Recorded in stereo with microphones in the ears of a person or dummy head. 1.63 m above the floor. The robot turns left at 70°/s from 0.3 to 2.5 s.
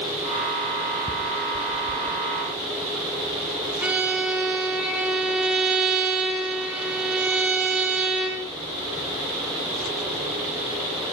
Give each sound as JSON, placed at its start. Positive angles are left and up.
{"t": 1.1, "sound": "ticking", "side_deg": -5, "distance_m": 0.8}
{"t": 3.8, "sound": "a violin", "side_deg": -10, "distance_m": 2.0}